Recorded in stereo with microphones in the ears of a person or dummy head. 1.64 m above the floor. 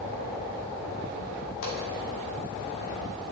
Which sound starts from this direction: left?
A pop, at 1.6 s.